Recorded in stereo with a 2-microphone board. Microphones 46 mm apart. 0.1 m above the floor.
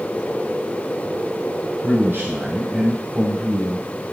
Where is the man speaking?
55° right (ahead or behind), 4 m.